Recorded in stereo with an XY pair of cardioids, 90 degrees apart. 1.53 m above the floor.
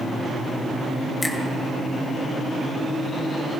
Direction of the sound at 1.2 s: 35° left.